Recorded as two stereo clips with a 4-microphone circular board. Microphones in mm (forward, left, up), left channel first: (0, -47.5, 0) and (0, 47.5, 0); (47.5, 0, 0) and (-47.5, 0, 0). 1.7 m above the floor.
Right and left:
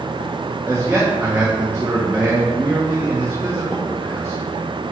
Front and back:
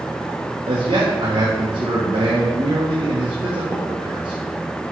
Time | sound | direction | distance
0.7 | a man speaking | 165° left | 1.4 m